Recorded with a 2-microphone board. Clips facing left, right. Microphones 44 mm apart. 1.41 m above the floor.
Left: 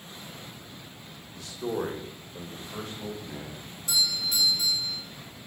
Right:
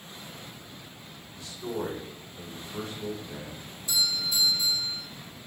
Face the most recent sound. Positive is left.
turn(degrees=85)